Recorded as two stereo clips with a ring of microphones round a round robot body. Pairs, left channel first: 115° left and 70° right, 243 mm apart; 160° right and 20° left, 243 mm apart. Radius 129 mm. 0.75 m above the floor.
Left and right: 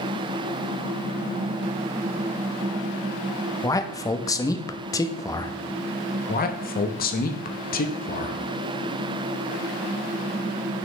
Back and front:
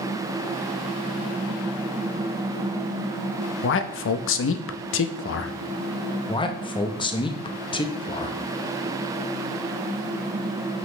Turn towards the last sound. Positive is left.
turn(degrees=140)